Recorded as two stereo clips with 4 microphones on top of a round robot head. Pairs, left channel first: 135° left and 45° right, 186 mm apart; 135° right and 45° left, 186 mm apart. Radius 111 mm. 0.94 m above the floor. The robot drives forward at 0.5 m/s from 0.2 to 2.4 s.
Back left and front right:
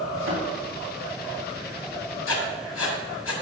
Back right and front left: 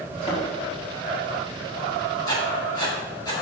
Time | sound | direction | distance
0.1 | a thud | 75° right | 4 m
2.3 | writing | 155° left | 1.9 m